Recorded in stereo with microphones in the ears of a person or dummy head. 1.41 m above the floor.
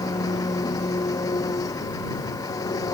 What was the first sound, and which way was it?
An engine running, 25° left (ahead or behind).